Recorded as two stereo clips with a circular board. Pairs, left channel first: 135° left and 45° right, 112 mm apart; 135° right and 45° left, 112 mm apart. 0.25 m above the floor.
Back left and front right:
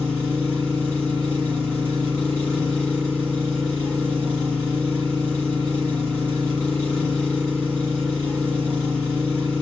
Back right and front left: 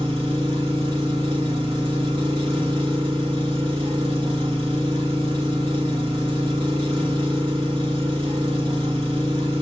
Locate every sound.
0.0 s an engine running: 55° left, 1.3 m